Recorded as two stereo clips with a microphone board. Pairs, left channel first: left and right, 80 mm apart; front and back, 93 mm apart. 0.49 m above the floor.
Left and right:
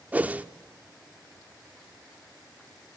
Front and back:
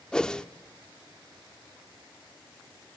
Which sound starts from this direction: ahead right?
A whoosh, at 0.1 s.